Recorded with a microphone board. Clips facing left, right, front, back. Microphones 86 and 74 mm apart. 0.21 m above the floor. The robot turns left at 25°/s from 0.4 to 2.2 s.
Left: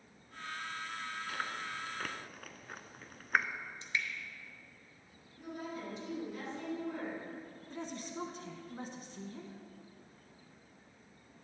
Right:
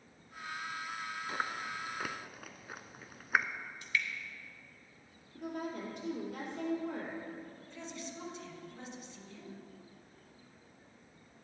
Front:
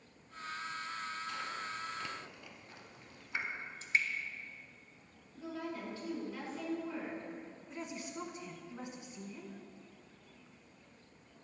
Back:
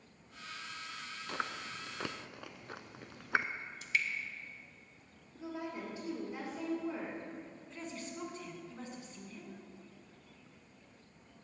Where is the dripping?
40° left, 1.1 m.